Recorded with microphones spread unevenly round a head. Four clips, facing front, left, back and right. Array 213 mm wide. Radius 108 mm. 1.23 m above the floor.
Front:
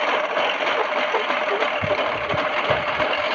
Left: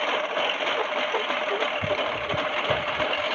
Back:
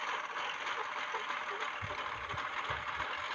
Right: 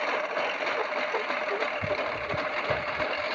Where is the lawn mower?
10° left; by 3.4 s 15° left.